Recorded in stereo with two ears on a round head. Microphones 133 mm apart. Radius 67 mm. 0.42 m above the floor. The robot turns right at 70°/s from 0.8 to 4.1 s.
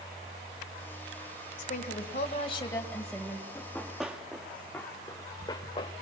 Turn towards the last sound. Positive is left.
turn(degrees=35)  # may be behind; listen again after turning